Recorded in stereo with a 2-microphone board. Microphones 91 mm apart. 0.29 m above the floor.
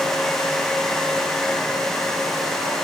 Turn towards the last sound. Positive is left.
No sound to turn to.